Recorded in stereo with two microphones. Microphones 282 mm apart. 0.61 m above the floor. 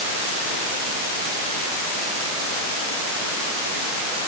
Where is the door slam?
I don't hear a door slam.